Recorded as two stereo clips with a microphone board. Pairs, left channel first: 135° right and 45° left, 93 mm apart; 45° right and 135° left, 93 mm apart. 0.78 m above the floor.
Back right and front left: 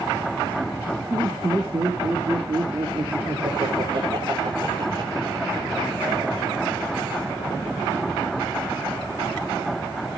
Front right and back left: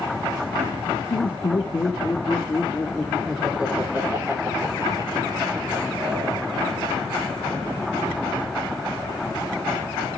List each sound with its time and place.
1.1 s laughter: 5° right, 2.5 m; by 7.2 s 100° left, 5 m